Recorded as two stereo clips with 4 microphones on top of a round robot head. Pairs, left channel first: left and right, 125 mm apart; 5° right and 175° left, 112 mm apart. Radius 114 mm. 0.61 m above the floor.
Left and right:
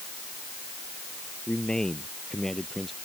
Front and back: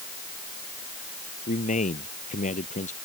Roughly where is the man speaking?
Ahead.